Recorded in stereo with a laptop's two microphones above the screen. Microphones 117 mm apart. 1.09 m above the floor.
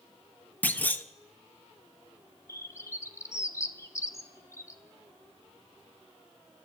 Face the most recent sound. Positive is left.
turn(degrees=25)  # may be behind; listen again after turning